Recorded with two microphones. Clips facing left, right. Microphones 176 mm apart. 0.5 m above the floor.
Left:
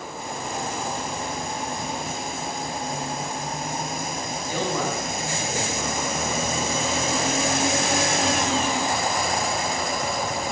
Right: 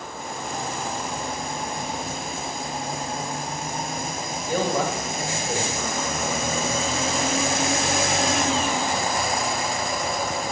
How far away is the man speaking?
About 3 m.